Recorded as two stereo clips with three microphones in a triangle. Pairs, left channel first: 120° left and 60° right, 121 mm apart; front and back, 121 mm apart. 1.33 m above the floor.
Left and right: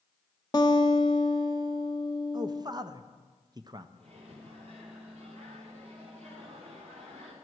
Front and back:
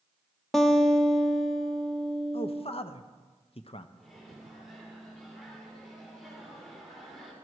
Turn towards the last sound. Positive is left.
turn(degrees=-90)